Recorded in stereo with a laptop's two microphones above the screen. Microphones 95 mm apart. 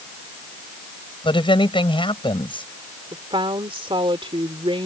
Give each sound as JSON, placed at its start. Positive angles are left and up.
{"t": 1.2, "sound": "a woman speaking", "side_deg": 65}
{"t": 3.1, "sound": "a woman speaking", "side_deg": -70}